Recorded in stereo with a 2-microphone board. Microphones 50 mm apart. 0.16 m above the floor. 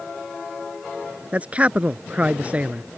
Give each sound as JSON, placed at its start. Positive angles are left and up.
{"t": 1.3, "sound": "a man speaking", "side_deg": -25}